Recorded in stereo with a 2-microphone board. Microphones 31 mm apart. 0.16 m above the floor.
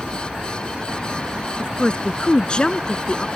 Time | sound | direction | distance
1.6 | a woman speaking | 30° left (ahead or behind) | ?